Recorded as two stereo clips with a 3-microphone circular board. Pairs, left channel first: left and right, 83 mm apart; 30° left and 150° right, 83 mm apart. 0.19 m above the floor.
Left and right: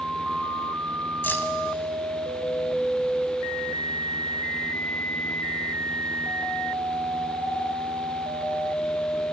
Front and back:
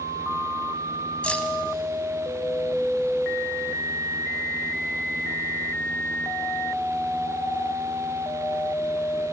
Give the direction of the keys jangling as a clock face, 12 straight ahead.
9 o'clock.